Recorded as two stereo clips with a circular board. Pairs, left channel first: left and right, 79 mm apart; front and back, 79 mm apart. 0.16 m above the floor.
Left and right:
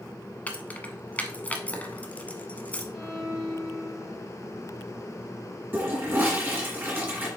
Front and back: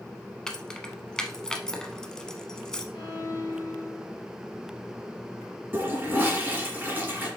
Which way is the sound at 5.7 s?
135° right.